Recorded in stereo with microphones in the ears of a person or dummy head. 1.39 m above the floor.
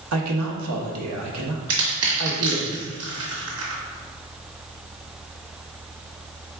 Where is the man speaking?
90° right, 0.9 m.